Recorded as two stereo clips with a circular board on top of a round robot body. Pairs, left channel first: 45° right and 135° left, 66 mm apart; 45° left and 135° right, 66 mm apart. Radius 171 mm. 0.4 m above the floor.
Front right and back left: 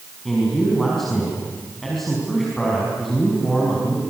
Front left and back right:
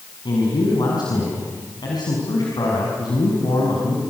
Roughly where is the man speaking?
Ahead left.